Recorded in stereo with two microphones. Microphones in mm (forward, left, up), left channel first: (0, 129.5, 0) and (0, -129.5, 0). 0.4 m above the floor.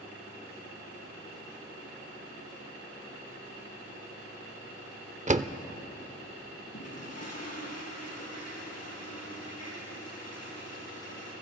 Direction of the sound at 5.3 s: 25° right (ahead or behind).